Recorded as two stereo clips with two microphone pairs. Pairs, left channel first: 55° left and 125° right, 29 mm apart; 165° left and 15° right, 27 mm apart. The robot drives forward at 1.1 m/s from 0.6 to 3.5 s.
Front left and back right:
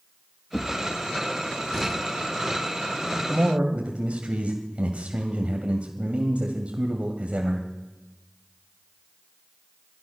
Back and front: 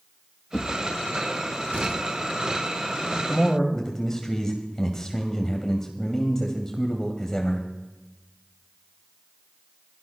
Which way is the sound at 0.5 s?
100° left.